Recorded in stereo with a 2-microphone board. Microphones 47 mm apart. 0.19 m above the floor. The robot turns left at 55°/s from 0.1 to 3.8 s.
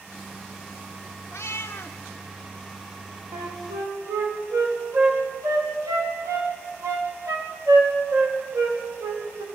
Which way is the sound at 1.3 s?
90° left.